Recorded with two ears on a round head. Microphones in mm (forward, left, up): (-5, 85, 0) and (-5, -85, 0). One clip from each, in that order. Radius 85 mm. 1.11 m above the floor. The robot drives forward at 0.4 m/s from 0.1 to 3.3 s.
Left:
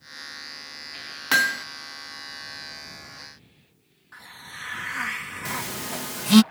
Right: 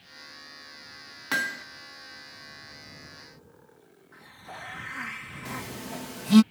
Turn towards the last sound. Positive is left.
turn(degrees=45)  # may be behind; listen again after turning